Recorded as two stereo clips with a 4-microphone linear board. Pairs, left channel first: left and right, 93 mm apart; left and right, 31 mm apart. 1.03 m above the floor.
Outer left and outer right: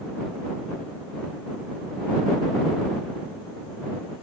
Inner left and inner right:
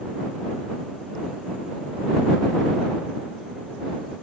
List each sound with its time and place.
Only background noise.